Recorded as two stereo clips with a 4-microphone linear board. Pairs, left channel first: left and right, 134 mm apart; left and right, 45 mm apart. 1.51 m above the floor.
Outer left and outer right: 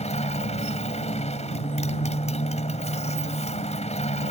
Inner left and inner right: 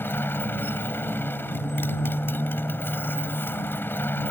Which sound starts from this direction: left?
A motorcycle, at 0.0 s.